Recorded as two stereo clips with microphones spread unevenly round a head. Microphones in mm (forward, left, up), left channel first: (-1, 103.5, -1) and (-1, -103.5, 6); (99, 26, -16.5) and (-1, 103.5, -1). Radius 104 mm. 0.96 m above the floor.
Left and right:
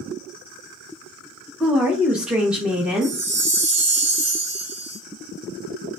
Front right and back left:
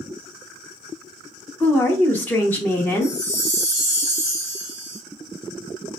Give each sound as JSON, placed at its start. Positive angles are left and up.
{"t": 1.6, "sound": "a woman speaking", "azimuth_deg": -5, "distance_m": 0.6}
{"t": 3.0, "sound": "a chime", "azimuth_deg": -155, "distance_m": 1.0}